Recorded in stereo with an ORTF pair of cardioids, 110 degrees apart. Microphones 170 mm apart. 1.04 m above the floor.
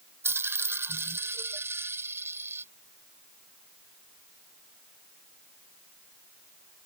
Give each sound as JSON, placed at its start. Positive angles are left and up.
{"t": 0.2, "sound": "a dropped coin", "azimuth_deg": -15}